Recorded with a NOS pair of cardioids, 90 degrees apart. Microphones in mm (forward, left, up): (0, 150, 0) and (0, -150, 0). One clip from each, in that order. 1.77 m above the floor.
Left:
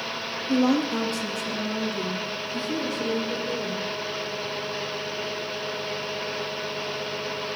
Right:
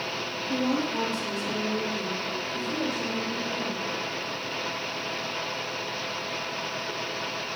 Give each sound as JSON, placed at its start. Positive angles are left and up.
{"t": 0.5, "sound": "a woman speaking", "azimuth_deg": 60, "distance_m": 3.0}